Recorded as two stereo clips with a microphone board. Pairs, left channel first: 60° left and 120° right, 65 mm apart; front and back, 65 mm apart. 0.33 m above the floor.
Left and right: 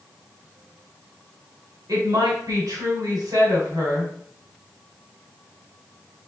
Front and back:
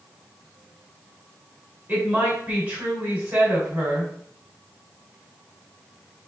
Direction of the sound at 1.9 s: 120° right.